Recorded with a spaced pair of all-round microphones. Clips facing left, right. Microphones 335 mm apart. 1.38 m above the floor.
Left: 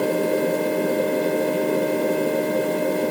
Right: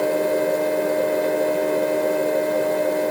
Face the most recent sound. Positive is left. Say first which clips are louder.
# even
turn(degrees=40)  # may be behind; listen again after turning